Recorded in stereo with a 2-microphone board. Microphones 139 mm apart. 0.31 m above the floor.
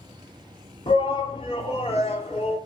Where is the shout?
40° left (ahead or behind), 3 m; by 2.6 s 45° left (ahead or behind), 4 m.